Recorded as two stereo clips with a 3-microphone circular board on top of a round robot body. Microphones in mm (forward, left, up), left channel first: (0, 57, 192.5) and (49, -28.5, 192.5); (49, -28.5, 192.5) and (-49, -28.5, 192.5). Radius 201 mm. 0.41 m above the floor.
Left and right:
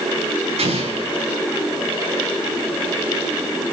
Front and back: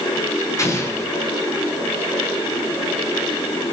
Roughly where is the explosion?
Ahead right.